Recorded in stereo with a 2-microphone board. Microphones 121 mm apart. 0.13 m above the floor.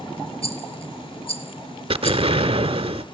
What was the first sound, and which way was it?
A rattle, 55° left (ahead or behind).